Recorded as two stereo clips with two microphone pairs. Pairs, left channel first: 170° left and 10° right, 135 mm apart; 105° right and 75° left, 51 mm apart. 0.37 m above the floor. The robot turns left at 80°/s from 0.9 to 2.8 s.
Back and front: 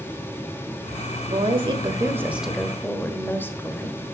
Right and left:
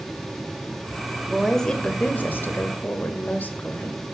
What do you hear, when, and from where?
1.3 s a woman speaking: straight ahead, 1.3 m; by 4.0 s 125° right, 1.3 m